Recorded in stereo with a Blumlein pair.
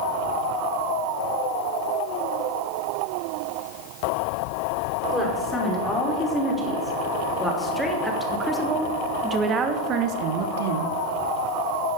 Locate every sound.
5.1 s a woman speaking: 10° left, 5 m; by 10.9 s 65° right, 1.3 m